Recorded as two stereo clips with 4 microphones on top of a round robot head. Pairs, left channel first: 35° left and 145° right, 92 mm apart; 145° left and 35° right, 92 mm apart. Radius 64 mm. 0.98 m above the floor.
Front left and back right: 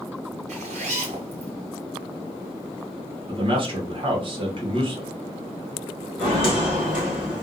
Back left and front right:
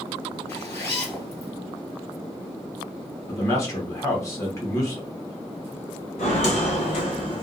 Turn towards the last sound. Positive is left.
turn(degrees=145)